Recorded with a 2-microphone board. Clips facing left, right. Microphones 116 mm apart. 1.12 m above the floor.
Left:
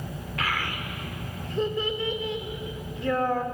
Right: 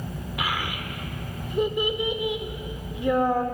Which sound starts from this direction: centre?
A child speaking, at 0.4 s.